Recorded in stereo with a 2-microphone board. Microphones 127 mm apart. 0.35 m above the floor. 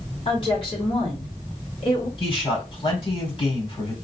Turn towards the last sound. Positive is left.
turn(degrees=45)  # may be behind; listen again after turning